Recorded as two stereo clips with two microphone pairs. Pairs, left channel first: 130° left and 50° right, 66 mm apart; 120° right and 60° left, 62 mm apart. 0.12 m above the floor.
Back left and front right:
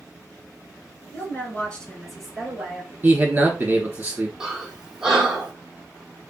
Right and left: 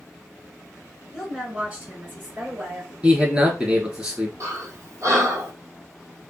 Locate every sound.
1.1 s a woman speaking: 135° left, 1.4 m; by 2.9 s 15° left, 2 m
3.0 s a man speaking: straight ahead, 1.6 m
4.4 s breathing: 25° left, 0.9 m